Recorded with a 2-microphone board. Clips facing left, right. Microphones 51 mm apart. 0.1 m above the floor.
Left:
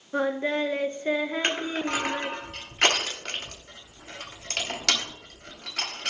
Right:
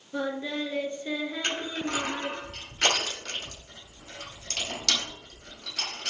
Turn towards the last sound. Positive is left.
turn(degrees=50)  # may be behind; listen again after turning